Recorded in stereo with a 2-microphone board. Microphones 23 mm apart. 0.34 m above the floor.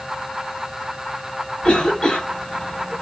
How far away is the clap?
No clap in this recording.